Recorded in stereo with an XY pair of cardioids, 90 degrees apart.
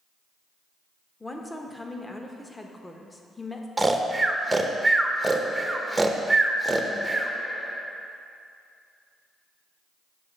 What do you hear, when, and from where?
1.2 s a woman speaking: 15° left, 0.9 m
3.8 s snoring: 15° right, 0.7 m